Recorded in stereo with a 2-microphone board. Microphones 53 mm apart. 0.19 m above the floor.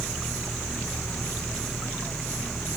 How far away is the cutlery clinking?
No cutlery clinking in this recording.